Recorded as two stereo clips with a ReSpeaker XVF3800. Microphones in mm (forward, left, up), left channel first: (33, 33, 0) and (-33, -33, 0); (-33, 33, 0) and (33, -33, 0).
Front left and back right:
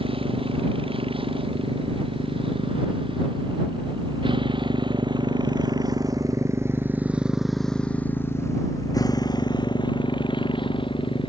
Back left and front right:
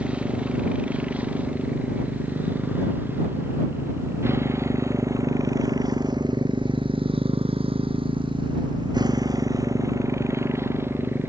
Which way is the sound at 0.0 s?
125° right.